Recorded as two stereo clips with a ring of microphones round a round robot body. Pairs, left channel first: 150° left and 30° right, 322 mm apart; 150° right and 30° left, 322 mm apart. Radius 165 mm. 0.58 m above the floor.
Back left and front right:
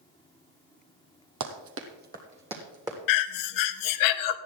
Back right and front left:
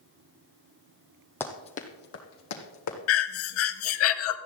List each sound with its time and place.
1.4 s running footsteps: 65° right, 1.3 m; by 3.0 s 110° right, 2.5 m
3.1 s breathing: 165° left, 0.6 m